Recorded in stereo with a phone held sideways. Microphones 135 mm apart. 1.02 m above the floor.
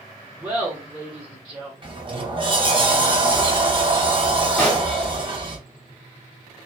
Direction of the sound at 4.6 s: 10° left (ahead or behind).